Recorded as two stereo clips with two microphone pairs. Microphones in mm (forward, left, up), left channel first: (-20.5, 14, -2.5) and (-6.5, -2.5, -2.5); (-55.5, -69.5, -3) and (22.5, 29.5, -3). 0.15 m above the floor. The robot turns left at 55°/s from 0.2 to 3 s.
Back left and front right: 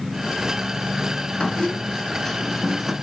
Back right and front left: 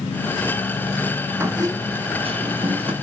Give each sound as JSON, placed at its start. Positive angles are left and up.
{"t": 1.4, "sound": "a squeak", "azimuth_deg": 120, "distance_m": 0.9}